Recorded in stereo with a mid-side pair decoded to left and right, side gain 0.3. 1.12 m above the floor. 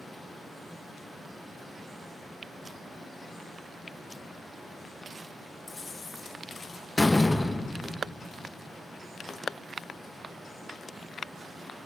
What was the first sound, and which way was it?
A fan, 25° right.